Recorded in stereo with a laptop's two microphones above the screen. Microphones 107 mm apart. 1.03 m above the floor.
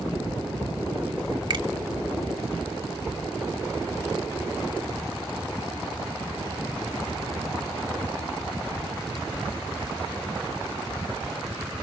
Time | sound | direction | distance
1.5 | a finger snap | 50° right (ahead or behind) | 2 m